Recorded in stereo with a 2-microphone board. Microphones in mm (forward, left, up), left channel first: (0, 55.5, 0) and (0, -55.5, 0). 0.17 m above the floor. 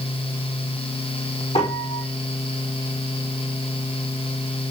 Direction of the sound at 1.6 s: 70° left (ahead or behind).